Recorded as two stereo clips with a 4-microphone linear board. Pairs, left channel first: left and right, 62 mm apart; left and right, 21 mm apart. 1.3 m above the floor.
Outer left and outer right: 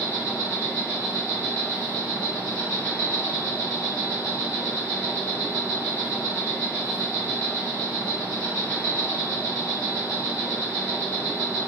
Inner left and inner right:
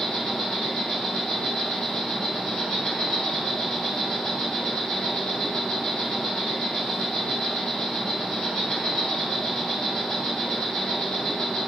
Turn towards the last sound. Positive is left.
turn(degrees=45)  # may be behind; listen again after turning